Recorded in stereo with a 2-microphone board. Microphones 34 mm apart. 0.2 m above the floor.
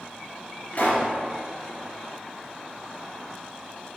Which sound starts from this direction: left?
A pop, at 0.7 s.